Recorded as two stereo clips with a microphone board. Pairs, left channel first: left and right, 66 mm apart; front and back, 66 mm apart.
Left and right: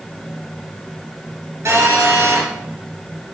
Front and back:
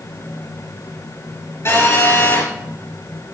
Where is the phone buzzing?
45° right, 5 m.